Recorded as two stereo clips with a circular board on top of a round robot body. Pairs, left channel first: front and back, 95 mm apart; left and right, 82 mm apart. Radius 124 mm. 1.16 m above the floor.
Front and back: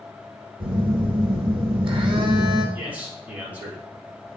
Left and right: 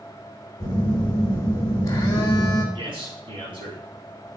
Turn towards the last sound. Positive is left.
turn(degrees=-105)